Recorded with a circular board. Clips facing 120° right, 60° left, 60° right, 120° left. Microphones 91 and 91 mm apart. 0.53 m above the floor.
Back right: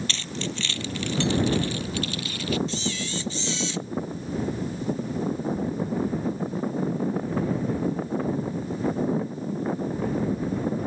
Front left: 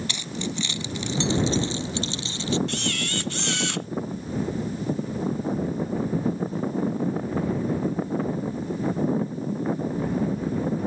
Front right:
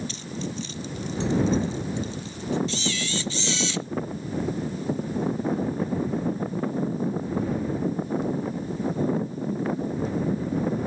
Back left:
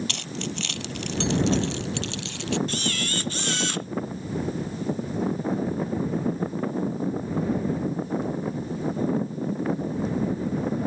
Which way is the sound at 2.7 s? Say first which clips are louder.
Front left 1 dB, even; 85° left.